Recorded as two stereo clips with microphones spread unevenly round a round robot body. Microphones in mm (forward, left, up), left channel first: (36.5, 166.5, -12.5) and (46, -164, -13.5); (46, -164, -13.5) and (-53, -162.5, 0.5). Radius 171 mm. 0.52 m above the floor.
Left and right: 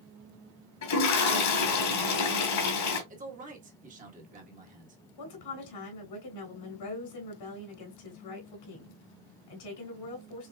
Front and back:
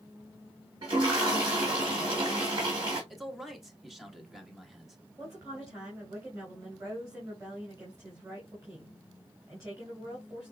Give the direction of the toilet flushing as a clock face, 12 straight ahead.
8 o'clock.